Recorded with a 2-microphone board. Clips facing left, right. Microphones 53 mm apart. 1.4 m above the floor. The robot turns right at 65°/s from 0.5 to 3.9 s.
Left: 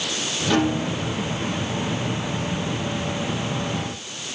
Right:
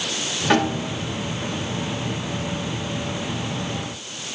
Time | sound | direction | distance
0.5 | a snare drum | 55° right (ahead or behind) | 8.5 m